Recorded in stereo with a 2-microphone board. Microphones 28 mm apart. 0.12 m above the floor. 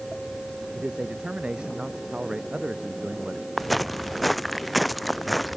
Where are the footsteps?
Centre (ahead or behind); by 5.6 s 5° right (ahead or behind).